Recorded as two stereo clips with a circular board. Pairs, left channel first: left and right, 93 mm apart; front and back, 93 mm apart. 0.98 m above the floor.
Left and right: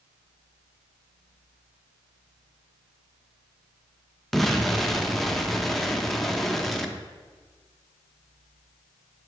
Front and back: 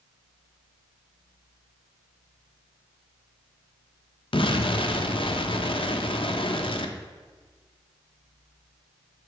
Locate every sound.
4.3 s an explosion: straight ahead, 0.5 m